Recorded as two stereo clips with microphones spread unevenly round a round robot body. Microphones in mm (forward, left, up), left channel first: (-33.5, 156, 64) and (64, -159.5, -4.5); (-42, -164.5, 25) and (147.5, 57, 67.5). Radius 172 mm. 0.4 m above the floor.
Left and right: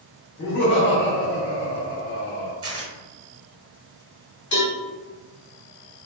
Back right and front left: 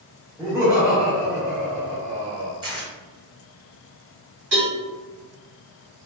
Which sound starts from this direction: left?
A cowbell, at 4.5 s.